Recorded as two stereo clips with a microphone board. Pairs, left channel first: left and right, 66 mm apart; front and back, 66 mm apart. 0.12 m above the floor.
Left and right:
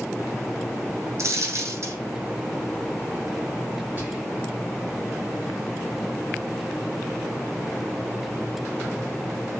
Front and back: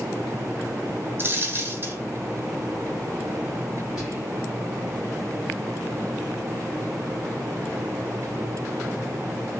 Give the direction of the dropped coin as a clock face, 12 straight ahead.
4 o'clock.